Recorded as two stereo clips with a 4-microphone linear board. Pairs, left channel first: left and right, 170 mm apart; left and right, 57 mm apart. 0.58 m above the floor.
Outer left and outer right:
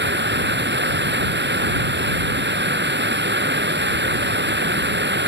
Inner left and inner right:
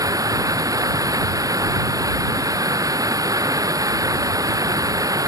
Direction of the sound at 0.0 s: 75° right (ahead or behind).